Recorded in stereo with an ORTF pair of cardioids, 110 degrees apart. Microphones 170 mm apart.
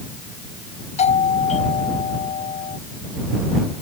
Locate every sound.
1.0 s a doorbell: 40° left